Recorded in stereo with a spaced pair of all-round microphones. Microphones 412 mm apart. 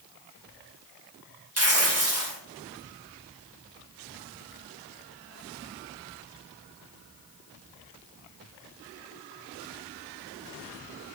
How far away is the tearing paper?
About 1.1 m.